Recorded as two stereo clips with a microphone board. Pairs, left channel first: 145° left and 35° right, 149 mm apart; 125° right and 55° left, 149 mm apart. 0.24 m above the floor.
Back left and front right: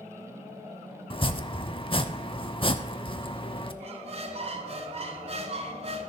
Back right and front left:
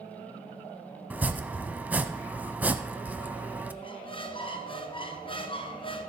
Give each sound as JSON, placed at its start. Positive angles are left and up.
{"t": 1.1, "sound": "chopping", "azimuth_deg": 130, "distance_m": 0.6}
{"t": 3.8, "sound": "a squeak", "azimuth_deg": -75, "distance_m": 1.1}